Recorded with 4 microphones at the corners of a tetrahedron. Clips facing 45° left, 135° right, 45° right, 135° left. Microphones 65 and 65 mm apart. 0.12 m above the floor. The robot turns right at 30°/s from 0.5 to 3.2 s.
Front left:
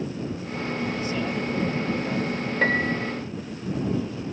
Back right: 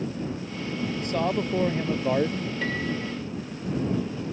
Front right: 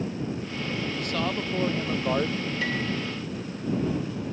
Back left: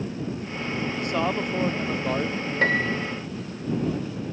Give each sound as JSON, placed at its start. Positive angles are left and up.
{"t": 1.0, "sound": "a man speaking", "azimuth_deg": -165}
{"t": 2.6, "sound": "a piano", "azimuth_deg": 90}